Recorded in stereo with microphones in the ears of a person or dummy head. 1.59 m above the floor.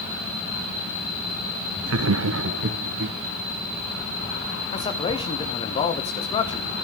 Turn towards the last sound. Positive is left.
turn(degrees=30)  # may be behind; listen again after turning